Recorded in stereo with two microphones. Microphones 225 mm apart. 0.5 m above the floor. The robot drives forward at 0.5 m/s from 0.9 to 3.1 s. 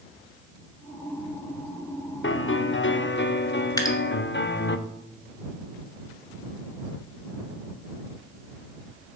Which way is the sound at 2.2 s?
60° left (ahead or behind).